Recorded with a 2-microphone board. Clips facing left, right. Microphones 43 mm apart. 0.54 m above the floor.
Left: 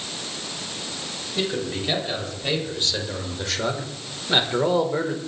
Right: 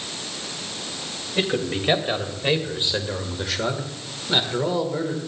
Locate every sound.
1.4 s a man speaking: 40° right (ahead or behind), 3 m; by 5.2 s 30° left (ahead or behind), 2 m